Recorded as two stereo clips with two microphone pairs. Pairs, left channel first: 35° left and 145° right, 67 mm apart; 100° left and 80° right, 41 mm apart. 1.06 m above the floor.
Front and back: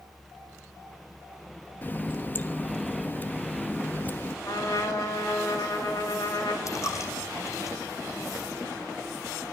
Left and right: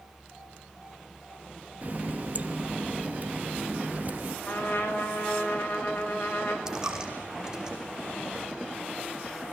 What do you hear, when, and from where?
1.8 s a running tap: 30° right, 1.0 m
4.5 s a trumpet: 60° left, 6 m
6.7 s a dropped coin: 5° right, 4.5 m